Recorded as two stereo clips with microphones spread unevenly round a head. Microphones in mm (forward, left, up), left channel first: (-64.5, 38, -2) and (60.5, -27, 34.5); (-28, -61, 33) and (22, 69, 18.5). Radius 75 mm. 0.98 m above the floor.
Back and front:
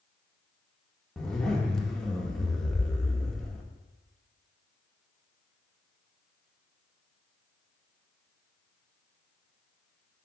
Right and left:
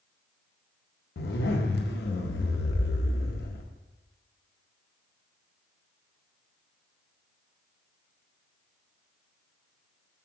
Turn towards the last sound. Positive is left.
turn(degrees=-120)